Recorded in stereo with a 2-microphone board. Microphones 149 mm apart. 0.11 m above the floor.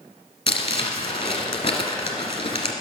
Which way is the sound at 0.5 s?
35° left (ahead or behind).